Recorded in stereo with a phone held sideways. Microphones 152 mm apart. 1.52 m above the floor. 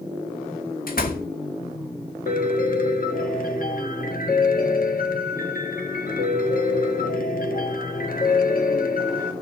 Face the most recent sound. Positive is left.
turn(degrees=65)  # may be behind; listen again after turning